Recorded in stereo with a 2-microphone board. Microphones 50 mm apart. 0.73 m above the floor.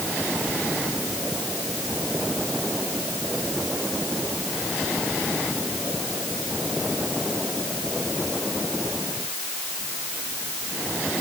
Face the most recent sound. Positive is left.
No sound to turn to.